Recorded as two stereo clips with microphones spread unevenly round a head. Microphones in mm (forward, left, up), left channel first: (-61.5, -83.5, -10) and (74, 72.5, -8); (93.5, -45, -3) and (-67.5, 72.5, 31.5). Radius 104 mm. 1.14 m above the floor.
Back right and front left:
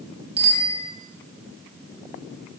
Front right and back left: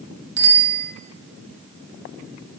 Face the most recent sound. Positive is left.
turn(degrees=110)